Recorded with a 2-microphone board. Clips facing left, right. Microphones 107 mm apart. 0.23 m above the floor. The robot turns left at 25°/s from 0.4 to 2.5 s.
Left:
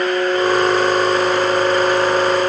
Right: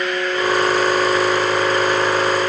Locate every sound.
Only background noise.